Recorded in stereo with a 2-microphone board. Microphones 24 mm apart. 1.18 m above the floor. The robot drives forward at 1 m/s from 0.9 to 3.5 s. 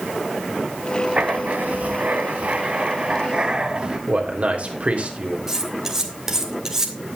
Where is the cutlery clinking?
20° right (ahead or behind), 2 m.